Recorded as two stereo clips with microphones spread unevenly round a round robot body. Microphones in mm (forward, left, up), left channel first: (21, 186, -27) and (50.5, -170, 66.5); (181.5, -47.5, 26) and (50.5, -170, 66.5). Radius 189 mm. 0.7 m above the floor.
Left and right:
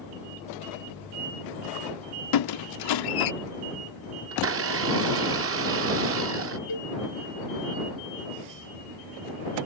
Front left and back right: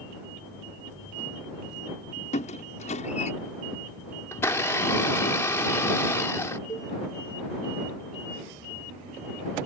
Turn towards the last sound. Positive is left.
turn(degrees=115)